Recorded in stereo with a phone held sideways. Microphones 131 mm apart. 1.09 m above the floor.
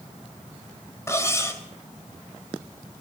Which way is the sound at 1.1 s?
20° left (ahead or behind).